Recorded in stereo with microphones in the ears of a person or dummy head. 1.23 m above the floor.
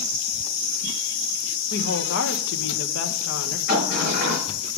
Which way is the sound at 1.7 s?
60° left (ahead or behind).